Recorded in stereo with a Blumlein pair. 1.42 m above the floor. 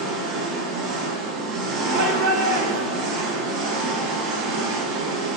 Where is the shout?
55° right, 1.8 m.